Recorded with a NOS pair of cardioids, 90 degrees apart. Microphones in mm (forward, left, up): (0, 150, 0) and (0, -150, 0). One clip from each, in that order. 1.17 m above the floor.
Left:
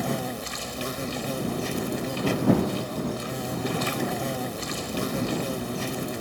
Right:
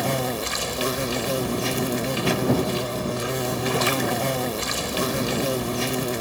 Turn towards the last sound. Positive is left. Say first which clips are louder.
# right 5 dB
turn(degrees=-50)